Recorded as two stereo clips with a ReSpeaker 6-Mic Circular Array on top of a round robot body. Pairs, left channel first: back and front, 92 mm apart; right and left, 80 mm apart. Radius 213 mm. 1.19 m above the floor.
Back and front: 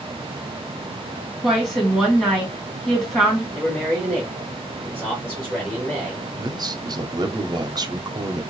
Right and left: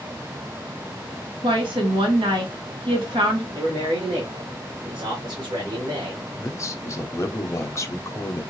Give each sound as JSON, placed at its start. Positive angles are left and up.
{"t": 1.4, "sound": "a woman speaking", "azimuth_deg": 85, "distance_m": 2.0}
{"t": 3.5, "sound": "a man speaking", "azimuth_deg": 90, "distance_m": 1.7}
{"t": 6.4, "sound": "a man speaking", "azimuth_deg": -40, "distance_m": 0.8}